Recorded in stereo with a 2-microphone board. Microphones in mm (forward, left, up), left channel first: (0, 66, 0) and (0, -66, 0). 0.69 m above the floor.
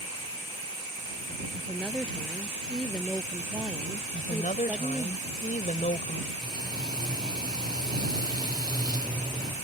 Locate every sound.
1.5 s a woman speaking: 5° left (ahead or behind); by 5.1 s 15° right (ahead or behind)
4.1 s a woman speaking: 75° left (ahead or behind)
6.4 s frying: 30° right (ahead or behind)